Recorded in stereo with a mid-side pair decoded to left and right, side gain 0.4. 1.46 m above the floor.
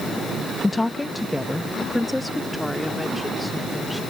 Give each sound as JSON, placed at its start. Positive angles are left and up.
{"t": 0.6, "sound": "a woman speaking", "azimuth_deg": 20}